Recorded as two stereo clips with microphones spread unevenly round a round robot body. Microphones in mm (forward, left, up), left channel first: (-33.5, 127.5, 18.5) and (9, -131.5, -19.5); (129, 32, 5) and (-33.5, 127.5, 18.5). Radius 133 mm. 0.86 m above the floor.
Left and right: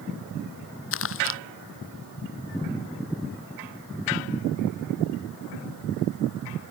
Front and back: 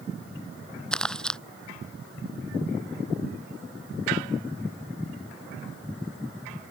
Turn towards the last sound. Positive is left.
turn(degrees=55)